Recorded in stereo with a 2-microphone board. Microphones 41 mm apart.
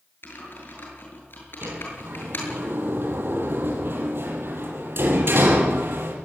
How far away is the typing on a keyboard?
About 8 m.